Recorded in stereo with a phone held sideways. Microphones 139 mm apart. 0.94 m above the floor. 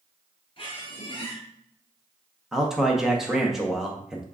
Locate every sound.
0.6 s a squeak: 40° left (ahead or behind), 1.6 m
2.5 s a man speaking: centre (ahead or behind), 0.7 m